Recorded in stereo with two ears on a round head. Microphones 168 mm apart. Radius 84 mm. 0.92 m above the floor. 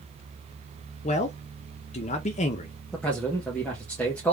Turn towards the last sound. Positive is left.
turn(degrees=10)  # may be behind; listen again after turning